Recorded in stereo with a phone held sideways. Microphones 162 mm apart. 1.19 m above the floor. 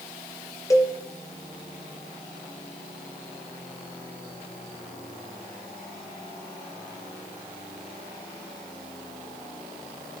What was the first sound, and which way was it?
A cowbell, 20° left (ahead or behind).